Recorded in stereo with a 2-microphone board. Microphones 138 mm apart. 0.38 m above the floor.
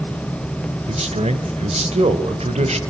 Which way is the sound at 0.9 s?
50° right (ahead or behind).